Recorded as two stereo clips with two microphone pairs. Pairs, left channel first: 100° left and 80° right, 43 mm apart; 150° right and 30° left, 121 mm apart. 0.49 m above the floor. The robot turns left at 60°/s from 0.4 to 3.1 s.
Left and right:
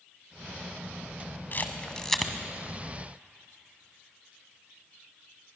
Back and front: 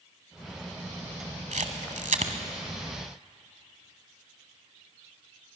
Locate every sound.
1.5 s a camera shutter: 55° left, 1.5 m; by 2.3 s 5° left, 1.5 m